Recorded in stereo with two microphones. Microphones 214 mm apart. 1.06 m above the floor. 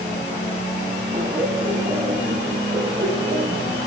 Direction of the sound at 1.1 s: 25° right (ahead or behind).